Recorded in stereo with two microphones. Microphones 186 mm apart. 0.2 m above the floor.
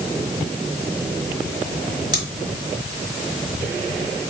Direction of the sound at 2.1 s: 20° right (ahead or behind).